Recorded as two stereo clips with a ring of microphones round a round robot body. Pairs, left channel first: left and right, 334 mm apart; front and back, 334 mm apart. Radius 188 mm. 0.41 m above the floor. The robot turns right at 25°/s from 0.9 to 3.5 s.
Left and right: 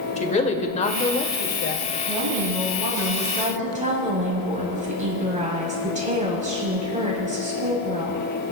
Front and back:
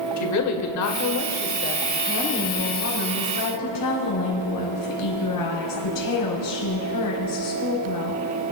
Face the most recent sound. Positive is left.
turn(degrees=-20)